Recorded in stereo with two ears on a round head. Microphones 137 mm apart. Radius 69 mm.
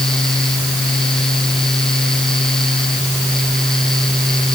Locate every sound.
Only background noise.